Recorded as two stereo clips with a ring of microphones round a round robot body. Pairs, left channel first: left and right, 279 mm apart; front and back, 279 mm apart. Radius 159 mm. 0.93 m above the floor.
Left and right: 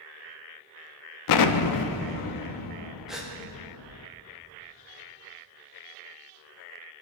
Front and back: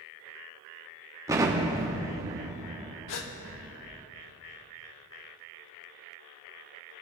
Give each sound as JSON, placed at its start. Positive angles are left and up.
{"t": 1.3, "sound": "an explosion", "azimuth_deg": 100, "distance_m": 0.6}
{"t": 3.1, "sound": "a gasp", "azimuth_deg": 0, "distance_m": 1.1}